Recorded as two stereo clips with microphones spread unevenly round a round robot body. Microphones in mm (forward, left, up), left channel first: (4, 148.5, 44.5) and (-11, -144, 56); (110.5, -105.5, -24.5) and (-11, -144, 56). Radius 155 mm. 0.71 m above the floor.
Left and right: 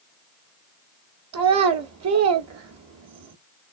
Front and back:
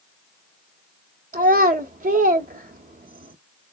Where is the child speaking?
135° right, 0.8 m.